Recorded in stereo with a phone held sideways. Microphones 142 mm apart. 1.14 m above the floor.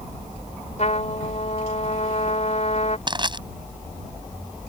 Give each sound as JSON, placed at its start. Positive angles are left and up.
{"t": 0.8, "sound": "a trumpet", "side_deg": 55}
{"t": 3.1, "sound": "crushing", "side_deg": -35}